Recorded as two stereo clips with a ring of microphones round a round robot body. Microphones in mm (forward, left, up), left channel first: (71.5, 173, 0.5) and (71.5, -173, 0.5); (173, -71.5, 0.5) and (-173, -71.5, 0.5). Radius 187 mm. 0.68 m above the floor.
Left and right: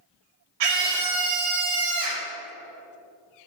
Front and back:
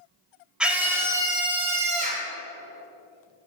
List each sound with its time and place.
0.6 s a scream: 90° right, 3 m; by 2.3 s 115° right, 2.5 m